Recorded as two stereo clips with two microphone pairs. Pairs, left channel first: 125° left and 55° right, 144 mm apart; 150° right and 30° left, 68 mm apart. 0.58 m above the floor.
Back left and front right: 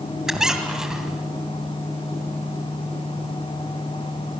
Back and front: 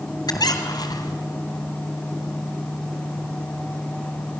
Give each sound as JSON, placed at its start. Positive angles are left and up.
{"t": 0.3, "sound": "a squeak", "azimuth_deg": -140, "distance_m": 2.0}